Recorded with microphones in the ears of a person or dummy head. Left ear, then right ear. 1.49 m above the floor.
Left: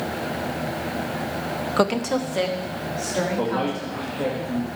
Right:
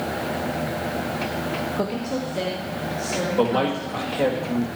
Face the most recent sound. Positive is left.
turn(degrees=-85)